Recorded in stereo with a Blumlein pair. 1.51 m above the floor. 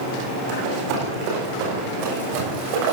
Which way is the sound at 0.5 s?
45° right.